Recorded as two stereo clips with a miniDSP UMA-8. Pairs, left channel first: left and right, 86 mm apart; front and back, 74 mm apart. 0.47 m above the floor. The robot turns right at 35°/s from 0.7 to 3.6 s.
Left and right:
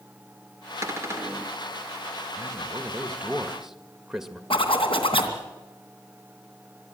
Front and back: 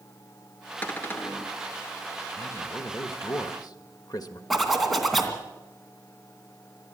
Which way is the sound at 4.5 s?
90° left.